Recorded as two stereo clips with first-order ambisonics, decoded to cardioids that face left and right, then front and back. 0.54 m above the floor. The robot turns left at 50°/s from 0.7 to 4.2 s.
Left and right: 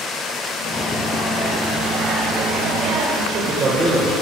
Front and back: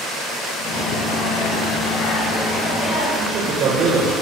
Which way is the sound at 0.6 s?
40° left.